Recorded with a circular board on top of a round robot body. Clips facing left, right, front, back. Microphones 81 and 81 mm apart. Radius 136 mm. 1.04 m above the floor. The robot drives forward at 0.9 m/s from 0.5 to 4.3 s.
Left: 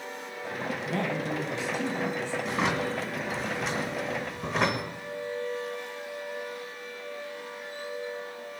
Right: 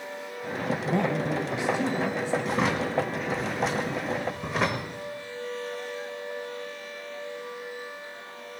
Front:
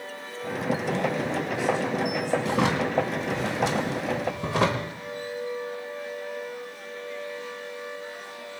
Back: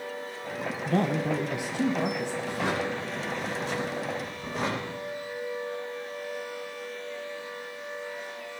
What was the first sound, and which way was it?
A man speaking, 150° right.